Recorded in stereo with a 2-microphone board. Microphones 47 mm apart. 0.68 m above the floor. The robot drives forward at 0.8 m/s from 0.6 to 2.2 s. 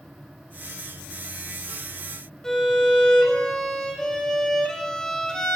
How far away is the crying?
No crying in this recording.